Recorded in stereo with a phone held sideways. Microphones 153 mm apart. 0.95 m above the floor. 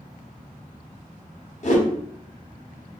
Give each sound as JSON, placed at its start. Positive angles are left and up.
{"t": 1.6, "sound": "a whoosh", "side_deg": 50, "distance_m": 0.6}